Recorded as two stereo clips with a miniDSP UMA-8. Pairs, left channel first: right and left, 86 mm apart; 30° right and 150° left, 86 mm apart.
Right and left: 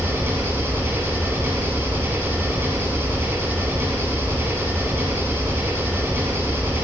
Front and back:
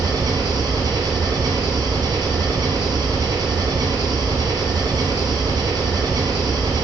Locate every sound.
0.0 s an engine running: 150° left, 1.2 m